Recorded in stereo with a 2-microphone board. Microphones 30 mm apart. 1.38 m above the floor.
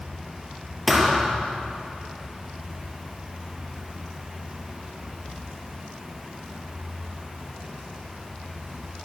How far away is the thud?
About 4 m.